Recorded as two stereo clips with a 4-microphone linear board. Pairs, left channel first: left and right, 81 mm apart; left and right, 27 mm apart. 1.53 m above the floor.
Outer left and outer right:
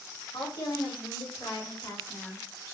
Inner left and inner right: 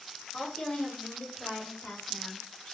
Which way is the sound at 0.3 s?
65° left (ahead or behind).